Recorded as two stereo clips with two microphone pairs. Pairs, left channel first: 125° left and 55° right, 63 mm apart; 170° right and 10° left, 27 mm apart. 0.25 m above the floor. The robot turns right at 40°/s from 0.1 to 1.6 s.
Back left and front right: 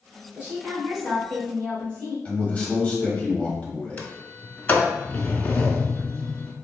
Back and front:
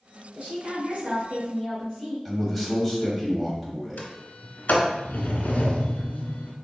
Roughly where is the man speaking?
Left.